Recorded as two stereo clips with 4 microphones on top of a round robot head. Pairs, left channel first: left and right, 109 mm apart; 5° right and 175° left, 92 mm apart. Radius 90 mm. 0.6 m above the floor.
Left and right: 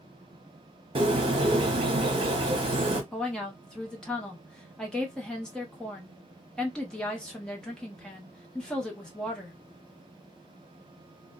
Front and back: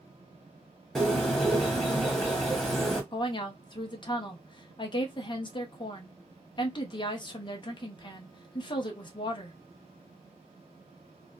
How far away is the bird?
About 0.9 m.